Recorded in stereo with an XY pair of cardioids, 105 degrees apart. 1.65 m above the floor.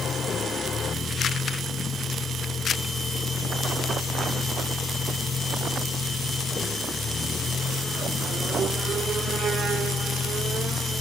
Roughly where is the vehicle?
Ahead left.